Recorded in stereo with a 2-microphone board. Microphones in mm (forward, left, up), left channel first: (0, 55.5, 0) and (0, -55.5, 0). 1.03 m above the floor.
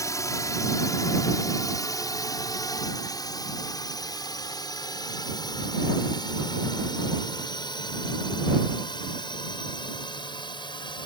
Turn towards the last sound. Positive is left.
turn(degrees=45)  # may be behind; listen again after turning